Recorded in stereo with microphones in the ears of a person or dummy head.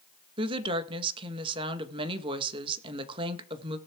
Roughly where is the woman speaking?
Right.